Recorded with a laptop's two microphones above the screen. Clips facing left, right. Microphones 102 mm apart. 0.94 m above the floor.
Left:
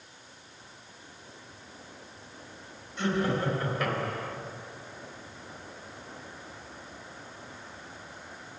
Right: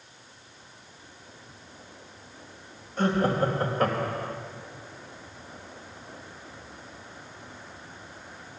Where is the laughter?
45° right (ahead or behind), 5 m; by 4.4 s 35° right (ahead or behind), 4.5 m.